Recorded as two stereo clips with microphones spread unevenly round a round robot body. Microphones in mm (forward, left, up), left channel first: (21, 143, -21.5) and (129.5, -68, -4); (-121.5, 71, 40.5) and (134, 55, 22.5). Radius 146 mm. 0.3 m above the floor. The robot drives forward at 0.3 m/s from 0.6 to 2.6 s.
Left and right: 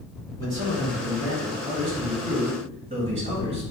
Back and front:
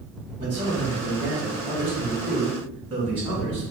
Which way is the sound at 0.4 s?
40° right.